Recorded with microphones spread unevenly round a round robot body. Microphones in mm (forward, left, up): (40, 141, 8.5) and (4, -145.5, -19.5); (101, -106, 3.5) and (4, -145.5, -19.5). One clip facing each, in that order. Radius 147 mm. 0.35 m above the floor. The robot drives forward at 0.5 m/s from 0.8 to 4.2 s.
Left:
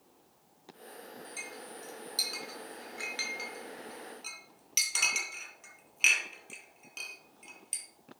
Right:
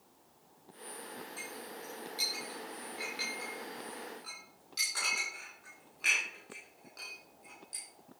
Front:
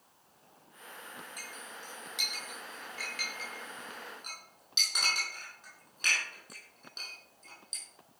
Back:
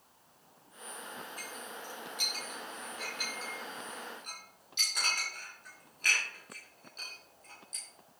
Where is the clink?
40° left, 4.5 m; by 7.8 s 55° left, 3.5 m.